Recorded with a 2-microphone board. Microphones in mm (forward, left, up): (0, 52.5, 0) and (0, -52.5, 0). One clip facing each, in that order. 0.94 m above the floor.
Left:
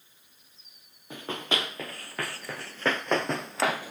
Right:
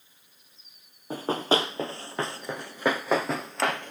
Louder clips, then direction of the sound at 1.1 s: Right 7 dB; 35° right (ahead or behind).